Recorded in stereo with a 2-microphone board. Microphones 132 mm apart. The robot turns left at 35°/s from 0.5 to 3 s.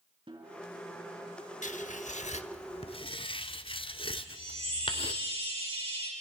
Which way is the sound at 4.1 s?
45° right (ahead or behind).